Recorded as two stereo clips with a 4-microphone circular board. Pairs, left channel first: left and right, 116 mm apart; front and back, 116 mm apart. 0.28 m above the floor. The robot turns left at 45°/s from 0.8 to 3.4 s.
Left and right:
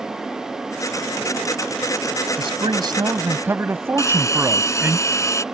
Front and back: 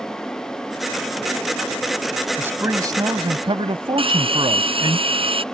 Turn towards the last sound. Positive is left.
turn(degrees=150)